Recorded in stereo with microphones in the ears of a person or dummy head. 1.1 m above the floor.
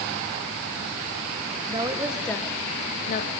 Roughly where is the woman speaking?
Right.